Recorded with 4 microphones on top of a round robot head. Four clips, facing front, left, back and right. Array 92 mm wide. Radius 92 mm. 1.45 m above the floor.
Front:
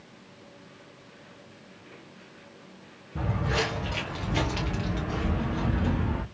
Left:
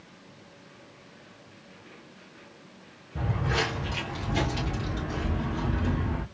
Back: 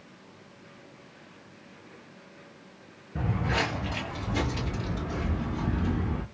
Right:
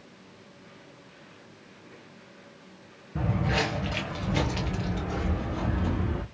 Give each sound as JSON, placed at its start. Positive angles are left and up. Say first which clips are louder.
{"t": 3.1, "sound": "footsteps", "louder": "right 1 dB, even", "azimuth_deg": -145, "distance_m": 1.5}